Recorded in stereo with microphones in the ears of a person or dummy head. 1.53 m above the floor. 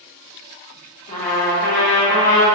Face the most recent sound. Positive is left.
turn(degrees=35)  # may be behind; listen again after turning